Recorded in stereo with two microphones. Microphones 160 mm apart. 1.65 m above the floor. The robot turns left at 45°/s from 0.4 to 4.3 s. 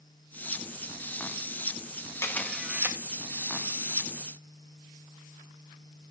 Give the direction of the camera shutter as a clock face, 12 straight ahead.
11 o'clock.